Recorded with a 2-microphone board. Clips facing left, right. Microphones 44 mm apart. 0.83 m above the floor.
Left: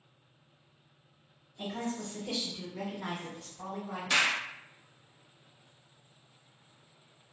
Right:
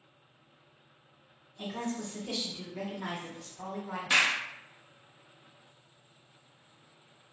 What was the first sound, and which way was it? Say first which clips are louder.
A woman speaking: even; 5° left (ahead or behind).